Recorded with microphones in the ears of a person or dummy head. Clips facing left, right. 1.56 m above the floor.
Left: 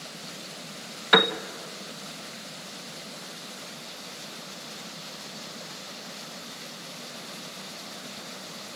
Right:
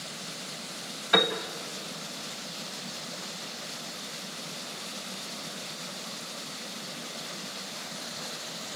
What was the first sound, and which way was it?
A piano, 75° left (ahead or behind).